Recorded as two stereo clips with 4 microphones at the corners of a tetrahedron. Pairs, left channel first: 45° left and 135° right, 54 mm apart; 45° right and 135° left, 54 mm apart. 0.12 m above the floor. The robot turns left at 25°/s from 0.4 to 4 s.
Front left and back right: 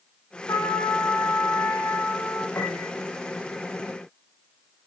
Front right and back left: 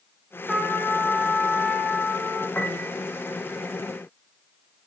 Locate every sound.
0.5 s a trumpet: 40° left, 8 m; by 2.5 s 10° right, 8 m
2.5 s a piano: 10° left, 4.5 m; by 2.9 s straight ahead, 4.5 m